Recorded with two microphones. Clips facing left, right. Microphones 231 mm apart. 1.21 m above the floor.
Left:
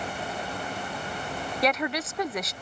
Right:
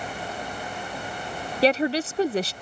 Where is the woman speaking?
30° right (ahead or behind).